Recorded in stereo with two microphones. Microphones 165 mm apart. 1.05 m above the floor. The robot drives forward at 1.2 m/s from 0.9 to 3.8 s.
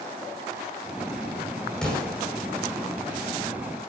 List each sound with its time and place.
1.8 s an explosion: 5° left (ahead or behind), 5 m